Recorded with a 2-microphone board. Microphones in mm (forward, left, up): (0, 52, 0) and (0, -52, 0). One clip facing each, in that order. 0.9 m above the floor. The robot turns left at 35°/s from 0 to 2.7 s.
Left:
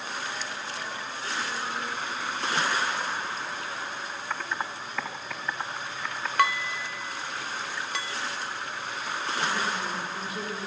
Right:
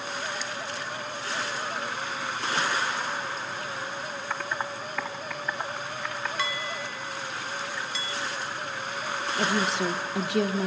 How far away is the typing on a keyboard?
About 2.5 m.